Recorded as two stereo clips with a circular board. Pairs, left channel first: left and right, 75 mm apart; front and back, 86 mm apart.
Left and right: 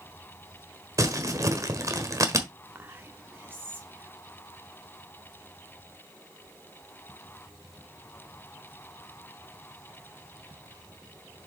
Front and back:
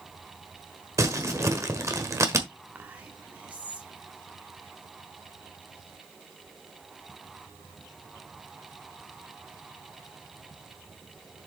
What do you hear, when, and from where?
1.0 s crumpling: 130° right, 1.3 m
2.8 s whispering: 120° right, 1.3 m